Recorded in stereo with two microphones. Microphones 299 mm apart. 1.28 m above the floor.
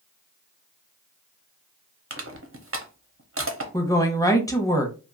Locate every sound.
2.1 s crushing: 45° right (ahead or behind), 0.7 m
3.7 s a woman speaking: 10° left (ahead or behind), 0.7 m